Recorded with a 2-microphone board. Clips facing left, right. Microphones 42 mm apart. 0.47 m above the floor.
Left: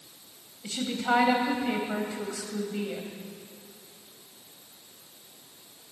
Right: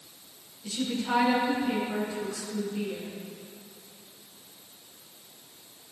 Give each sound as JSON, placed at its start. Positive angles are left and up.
{"t": 0.6, "sound": "a woman speaking", "side_deg": 65, "distance_m": 3.0}